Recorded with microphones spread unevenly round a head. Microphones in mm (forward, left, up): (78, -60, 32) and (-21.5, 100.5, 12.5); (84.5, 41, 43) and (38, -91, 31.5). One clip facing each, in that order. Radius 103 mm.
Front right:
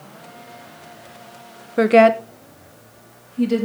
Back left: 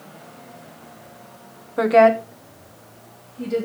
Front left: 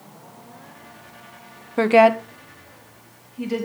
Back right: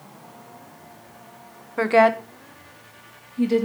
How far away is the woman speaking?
About 1.2 m.